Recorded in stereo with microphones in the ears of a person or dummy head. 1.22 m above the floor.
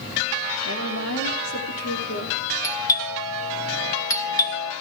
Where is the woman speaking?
65° left (ahead or behind), 3 m; by 2.4 s 80° left, 3.5 m.